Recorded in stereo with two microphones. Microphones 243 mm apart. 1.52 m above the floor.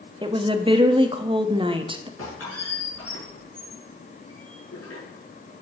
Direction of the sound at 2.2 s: 75° left (ahead or behind).